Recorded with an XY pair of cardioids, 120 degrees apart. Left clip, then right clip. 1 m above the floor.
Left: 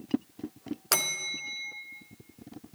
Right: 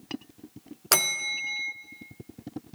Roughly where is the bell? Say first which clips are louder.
Right 4 dB; ahead right.